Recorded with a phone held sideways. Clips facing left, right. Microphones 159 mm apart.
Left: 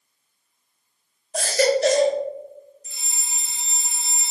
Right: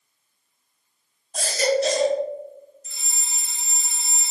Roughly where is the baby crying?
Left.